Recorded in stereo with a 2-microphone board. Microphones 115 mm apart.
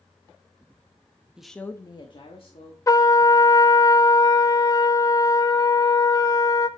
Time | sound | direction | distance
1.4 | a woman speaking | 5° right (ahead or behind) | 0.8 m
2.9 | a trumpet | 30° left (ahead or behind) | 0.5 m